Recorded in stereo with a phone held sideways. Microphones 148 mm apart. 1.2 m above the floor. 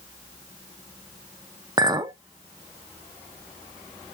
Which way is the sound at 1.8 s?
25° right (ahead or behind).